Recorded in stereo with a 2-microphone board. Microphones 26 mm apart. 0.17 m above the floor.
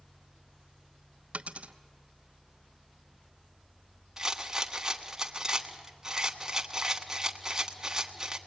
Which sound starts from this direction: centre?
A rattle, at 4.2 s.